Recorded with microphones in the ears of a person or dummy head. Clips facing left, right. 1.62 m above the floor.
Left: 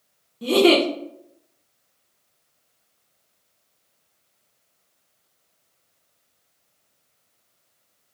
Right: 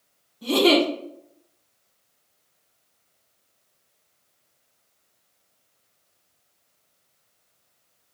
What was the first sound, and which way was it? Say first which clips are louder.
A giggle: left 2 dB; 50° left (ahead or behind).